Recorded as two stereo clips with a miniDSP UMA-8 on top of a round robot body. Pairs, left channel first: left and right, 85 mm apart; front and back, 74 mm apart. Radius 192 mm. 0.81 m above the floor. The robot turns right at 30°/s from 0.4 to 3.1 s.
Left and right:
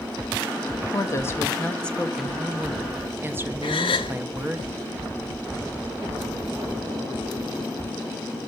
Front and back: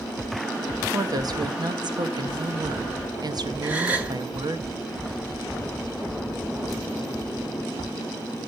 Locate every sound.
0.9 s a woman speaking: 140° left, 1.1 m; by 4.6 s 155° right, 1.1 m
3.6 s a gasp: 110° left, 0.6 m